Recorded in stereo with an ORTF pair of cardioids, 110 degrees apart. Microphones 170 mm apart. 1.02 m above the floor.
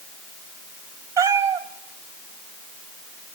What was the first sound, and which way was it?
A cat meowing, 20° right.